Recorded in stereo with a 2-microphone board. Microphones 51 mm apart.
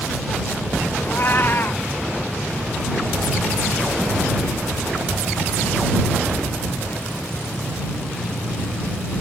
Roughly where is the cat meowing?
Left.